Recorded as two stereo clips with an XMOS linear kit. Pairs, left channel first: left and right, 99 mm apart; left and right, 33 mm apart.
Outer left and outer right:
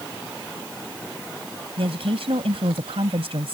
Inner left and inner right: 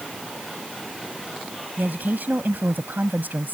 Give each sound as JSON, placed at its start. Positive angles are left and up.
{"t": 1.8, "sound": "a woman speaking", "side_deg": -75}